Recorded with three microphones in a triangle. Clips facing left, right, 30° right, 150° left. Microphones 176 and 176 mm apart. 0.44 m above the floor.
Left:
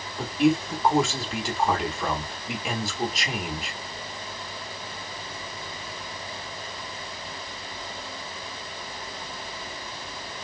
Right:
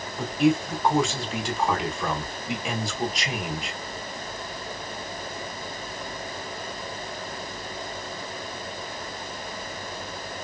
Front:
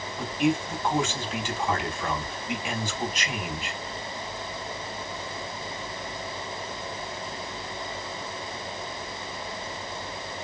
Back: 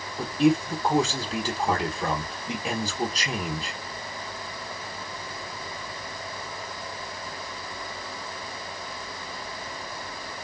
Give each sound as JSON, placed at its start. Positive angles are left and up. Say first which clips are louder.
{"t": 0.2, "sound": "a man speaking", "louder": "even, back 4 dB", "azimuth_deg": 180, "distance_m": 1.0}